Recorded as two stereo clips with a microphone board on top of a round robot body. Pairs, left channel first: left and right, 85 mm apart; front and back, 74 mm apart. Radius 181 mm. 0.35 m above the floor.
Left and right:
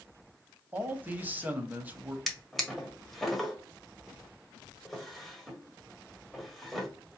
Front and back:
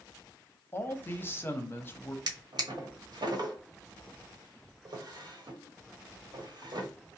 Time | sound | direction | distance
0.7 | a man speaking | 35° right | 1.0 m
2.3 | a drawer | straight behind | 1.1 m